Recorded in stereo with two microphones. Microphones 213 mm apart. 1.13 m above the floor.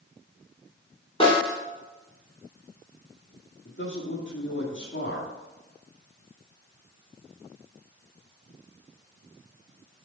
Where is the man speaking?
55° left (ahead or behind), 2 m.